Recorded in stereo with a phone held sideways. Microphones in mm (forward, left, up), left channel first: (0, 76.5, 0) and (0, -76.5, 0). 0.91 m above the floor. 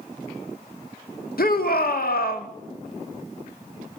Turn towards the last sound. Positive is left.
turn(degrees=75)  # may be behind; listen again after turning